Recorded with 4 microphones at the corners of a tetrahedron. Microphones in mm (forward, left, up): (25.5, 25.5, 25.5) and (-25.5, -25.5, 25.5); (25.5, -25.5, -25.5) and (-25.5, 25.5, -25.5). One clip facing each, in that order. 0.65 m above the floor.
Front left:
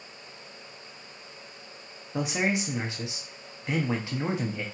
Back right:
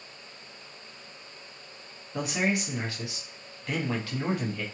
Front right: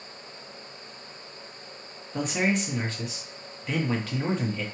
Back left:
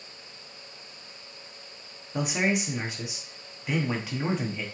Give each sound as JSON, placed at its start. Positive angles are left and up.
{"t": 2.1, "sound": "a man speaking", "azimuth_deg": 75, "distance_m": 0.9}